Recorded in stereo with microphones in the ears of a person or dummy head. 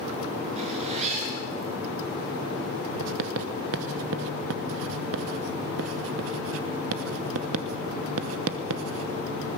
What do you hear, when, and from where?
0.6 s a zipper: 40° right (ahead or behind), 6 m
3.0 s writing: 80° right, 1.0 m